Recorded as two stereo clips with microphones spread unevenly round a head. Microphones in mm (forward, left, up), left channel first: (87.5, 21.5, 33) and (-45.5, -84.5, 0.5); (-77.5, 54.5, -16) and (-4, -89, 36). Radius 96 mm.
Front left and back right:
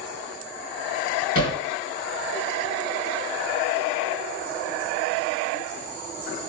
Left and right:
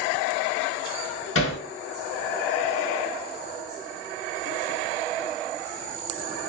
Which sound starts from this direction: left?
Hammering, at 1.4 s.